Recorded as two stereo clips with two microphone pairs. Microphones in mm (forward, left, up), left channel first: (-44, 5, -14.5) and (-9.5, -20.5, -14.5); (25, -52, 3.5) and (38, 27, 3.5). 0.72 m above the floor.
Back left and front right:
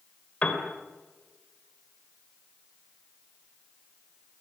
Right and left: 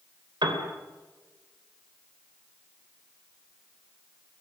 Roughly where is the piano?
Left.